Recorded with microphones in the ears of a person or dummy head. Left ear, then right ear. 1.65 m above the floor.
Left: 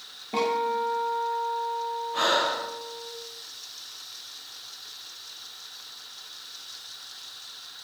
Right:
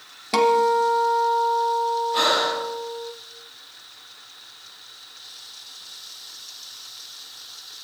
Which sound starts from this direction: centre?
Breathing, at 2.1 s.